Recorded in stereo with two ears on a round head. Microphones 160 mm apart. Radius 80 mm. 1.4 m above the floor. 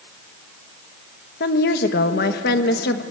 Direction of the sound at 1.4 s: 60° left (ahead or behind).